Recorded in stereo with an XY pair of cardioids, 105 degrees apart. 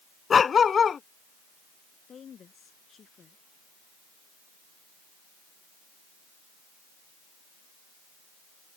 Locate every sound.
0.3 s a dog barking: 40° left
2.1 s a woman speaking: 50° left